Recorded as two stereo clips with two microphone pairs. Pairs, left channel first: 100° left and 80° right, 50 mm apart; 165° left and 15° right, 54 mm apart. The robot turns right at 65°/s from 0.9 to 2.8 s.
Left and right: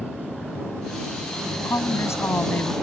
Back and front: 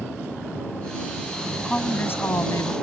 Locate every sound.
1.6 s a woman speaking: 90° left; by 2.7 s 160° left